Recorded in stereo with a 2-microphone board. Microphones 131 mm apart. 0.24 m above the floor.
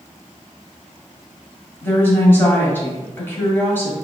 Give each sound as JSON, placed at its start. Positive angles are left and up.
{"t": 1.8, "sound": "a woman speaking", "side_deg": 15, "distance_m": 1.4}